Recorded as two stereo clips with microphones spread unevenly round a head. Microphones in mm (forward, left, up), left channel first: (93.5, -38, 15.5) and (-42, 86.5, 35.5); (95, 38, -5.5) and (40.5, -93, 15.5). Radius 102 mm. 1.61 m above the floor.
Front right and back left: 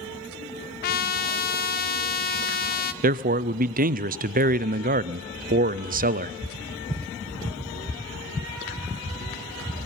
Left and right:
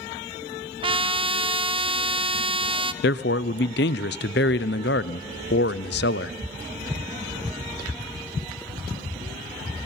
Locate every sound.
0.8 s a trumpet: 85° right, 0.7 m
3.0 s a man speaking: 95° left, 0.5 m